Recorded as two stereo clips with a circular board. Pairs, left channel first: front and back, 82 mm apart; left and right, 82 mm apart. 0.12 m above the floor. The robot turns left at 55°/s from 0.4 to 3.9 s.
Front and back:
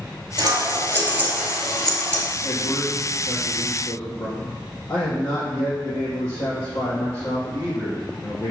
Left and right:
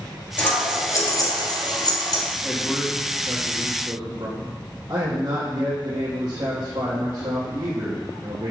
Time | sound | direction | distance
0.4 | scissors | 160° left | 2.5 m
2.4 | a man speaking | 20° left | 3.5 m